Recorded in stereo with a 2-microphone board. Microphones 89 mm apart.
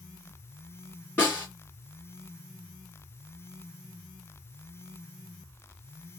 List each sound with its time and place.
1.2 s a snare drum: 20° left (ahead or behind), 1.8 m